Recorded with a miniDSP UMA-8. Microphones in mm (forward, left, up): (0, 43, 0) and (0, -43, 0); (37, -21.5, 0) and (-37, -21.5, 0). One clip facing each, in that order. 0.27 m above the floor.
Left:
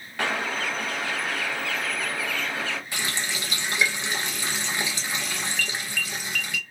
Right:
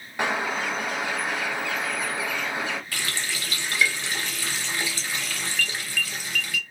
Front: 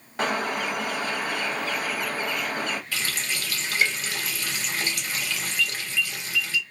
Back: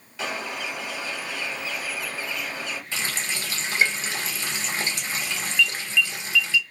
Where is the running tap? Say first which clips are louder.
Left 1 dB, even; 140° left, 0.7 m.